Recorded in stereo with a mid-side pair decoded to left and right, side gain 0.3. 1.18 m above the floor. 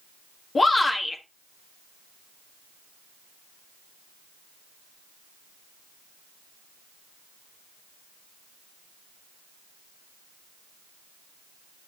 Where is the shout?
45° left, 1.7 m.